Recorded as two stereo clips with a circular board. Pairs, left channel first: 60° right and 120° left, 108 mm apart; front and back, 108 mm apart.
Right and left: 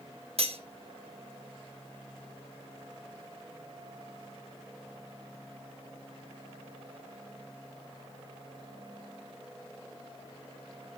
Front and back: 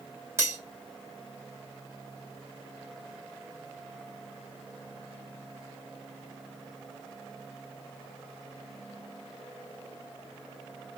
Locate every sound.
0.4 s cutlery clinking: 115° left, 1.2 m